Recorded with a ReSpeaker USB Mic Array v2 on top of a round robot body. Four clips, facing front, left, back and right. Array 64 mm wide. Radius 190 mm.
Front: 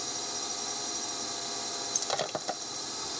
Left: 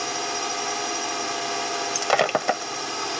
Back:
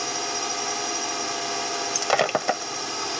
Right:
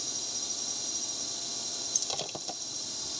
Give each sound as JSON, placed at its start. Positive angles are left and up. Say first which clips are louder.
{"t": 0.0, "sound": "a drone", "louder": "left 18 dB, back 11 dB", "azimuth_deg": 120}
{"t": 1.9, "sound": "breaking glass", "louder": "left 19 dB, back 12 dB", "azimuth_deg": 125}